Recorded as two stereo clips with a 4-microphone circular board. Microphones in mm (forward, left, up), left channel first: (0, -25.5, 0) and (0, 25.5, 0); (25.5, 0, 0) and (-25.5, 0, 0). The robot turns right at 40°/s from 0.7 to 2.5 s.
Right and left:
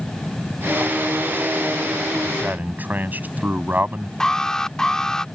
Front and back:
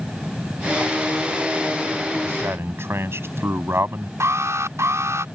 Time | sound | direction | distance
2.2 | a man speaking | 135° left | ?
4.2 | an alarm | 165° right | ?